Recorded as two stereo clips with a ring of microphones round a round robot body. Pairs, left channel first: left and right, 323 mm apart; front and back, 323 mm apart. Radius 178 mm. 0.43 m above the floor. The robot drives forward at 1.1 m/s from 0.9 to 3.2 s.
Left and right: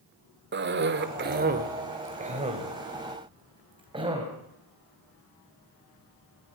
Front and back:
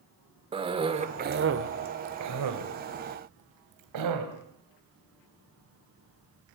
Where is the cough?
115° right, 1.5 m; by 4.3 s 165° right, 3.5 m.